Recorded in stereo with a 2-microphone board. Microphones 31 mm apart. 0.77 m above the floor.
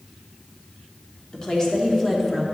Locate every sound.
1.3 s a woman speaking: 25° left (ahead or behind), 1.8 m; by 2.4 s 5° left (ahead or behind), 1.5 m